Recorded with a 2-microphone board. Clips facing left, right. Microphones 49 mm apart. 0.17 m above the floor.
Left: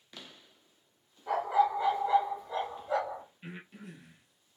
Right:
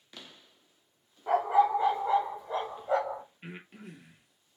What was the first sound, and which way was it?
A dog barking, 30° right (ahead or behind).